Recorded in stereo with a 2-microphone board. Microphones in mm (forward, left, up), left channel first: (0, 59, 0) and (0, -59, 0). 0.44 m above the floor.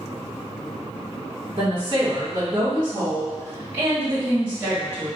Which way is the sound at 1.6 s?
40° right (ahead or behind).